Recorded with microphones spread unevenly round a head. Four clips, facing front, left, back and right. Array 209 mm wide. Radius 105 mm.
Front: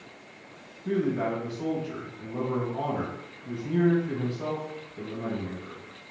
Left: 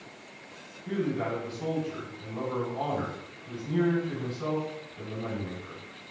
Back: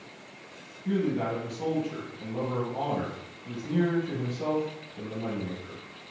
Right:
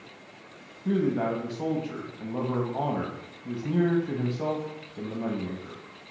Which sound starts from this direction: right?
A man speaking, at 0.8 s.